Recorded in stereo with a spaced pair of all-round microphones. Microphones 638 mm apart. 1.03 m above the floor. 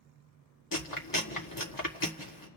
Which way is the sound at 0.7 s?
30° left (ahead or behind).